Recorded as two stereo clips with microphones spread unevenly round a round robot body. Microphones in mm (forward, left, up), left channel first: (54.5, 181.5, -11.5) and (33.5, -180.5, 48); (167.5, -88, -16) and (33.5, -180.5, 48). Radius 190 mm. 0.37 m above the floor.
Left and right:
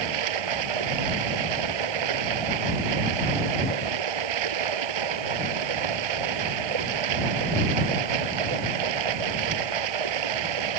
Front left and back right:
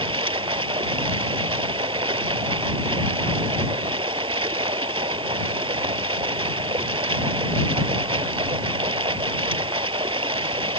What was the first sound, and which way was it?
Running water, 90° right.